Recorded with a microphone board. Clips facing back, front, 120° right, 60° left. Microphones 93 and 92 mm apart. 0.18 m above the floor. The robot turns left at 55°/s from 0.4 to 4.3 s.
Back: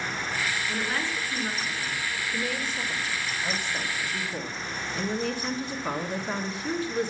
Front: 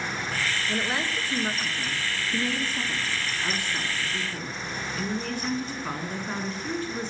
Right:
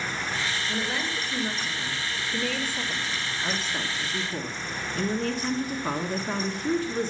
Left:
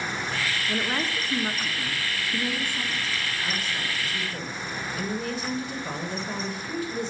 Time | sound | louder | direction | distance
0.7 | a woman speaking | front 1 dB, left 2 dB | 100° left | 1.5 m